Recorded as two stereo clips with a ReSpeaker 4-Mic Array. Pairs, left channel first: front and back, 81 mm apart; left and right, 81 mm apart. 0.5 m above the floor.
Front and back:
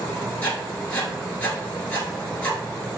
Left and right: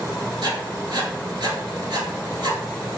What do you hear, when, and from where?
0.4 s writing: 70° right, 1.3 m